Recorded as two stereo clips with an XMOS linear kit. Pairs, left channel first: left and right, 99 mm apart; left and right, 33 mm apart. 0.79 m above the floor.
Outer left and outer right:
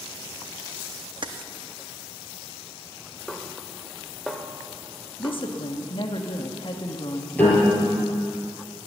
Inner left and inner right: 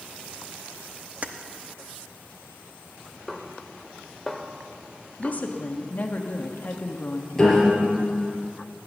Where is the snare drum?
Centre (ahead or behind), 1.0 m.